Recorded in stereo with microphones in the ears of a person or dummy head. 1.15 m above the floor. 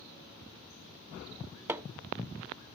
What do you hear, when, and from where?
1.7 s hammering: 10° right (ahead or behind), 0.5 m